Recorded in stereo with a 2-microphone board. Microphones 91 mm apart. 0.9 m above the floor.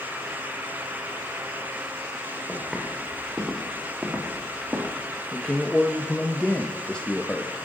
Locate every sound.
2.5 s footsteps: 5° right (ahead or behind), 5 m; by 5.0 s 25° right (ahead or behind), 4.5 m
5.3 s a man speaking: 10° left (ahead or behind), 1.0 m